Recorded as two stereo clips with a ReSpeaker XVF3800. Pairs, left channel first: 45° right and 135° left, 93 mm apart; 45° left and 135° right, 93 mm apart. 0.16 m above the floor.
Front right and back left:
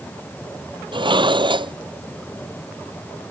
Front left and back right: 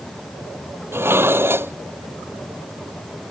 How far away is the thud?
I don't hear a thud.